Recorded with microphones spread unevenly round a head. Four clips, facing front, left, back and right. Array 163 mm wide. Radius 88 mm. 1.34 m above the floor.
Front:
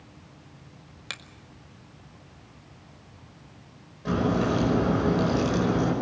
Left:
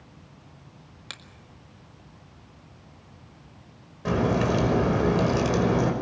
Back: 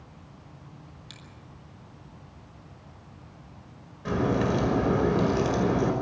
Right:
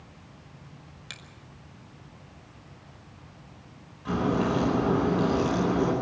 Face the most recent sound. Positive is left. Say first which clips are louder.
# left 2 dB, front 1 dB
turn(degrees=90)